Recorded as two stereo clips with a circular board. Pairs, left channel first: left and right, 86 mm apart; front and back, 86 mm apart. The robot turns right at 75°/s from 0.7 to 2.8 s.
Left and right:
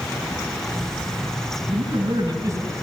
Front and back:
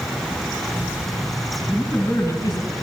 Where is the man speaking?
100° right, 6 m; by 2.7 s 20° right, 6 m.